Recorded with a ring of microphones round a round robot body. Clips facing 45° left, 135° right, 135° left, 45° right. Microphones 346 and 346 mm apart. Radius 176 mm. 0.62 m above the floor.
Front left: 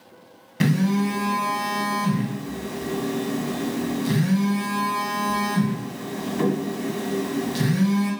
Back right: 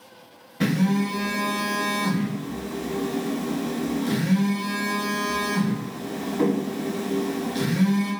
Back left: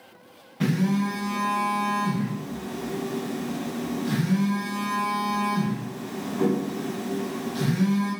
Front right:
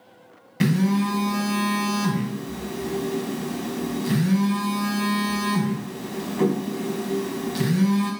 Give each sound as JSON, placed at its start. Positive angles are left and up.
{"t": 0.6, "sound": "a phone buzzing", "azimuth_deg": 0, "distance_m": 1.6}